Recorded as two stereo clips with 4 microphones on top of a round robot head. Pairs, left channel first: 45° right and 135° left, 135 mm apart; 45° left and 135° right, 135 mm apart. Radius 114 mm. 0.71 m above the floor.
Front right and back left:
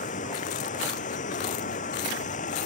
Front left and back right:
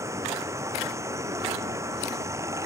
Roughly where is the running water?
Right.